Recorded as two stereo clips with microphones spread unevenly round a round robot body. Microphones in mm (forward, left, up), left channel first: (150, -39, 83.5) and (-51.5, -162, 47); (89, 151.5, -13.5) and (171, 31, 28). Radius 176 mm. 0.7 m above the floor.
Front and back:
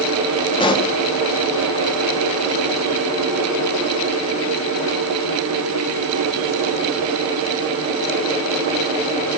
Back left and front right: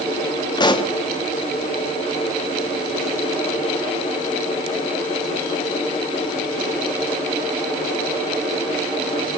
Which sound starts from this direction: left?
A pop, at 0.6 s.